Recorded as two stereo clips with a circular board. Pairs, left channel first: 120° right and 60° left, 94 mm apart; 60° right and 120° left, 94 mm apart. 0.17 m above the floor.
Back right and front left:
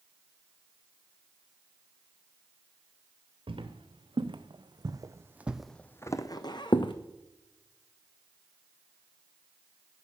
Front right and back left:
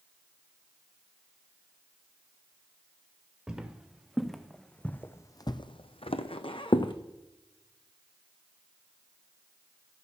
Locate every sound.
3.5 s footsteps: 40° left, 1.4 m; by 6.9 s 90° right, 0.9 m